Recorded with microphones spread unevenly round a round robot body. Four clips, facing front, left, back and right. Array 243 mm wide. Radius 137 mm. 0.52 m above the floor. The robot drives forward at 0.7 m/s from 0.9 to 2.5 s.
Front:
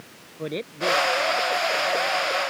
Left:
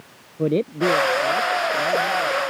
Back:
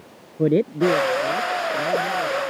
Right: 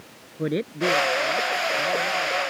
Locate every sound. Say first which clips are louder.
0.4 s a man speaking: left 5 dB, back 10 dB; 175° left